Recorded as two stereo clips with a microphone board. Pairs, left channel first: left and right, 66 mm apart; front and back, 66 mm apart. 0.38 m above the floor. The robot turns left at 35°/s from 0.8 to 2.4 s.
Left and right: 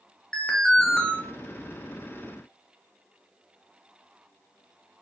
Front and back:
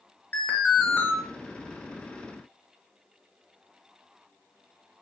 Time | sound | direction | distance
0.3 | an alarm | 25° left | 0.5 m